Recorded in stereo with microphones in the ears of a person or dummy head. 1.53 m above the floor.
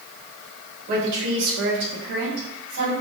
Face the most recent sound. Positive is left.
turn(degrees=-50)  # may be behind; listen again after turning